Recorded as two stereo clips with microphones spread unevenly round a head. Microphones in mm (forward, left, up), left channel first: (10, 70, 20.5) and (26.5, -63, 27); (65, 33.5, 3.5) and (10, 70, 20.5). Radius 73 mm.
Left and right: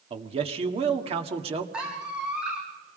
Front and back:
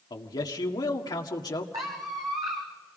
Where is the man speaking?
35° right, 1.8 m.